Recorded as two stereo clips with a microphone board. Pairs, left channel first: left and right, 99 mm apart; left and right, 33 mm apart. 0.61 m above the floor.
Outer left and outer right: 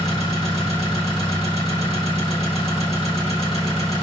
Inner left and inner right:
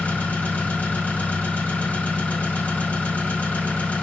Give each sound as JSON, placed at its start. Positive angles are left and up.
{"t": 0.0, "sound": "an engine running", "side_deg": 80, "distance_m": 1.4}